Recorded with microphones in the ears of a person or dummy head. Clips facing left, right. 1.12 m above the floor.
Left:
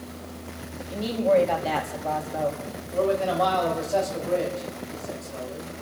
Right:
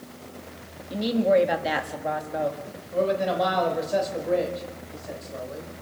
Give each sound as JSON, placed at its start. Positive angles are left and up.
{"t": 0.9, "sound": "a woman speaking", "side_deg": -15, "distance_m": 1.9}
{"t": 2.9, "sound": "a man speaking", "side_deg": -20, "distance_m": 4.0}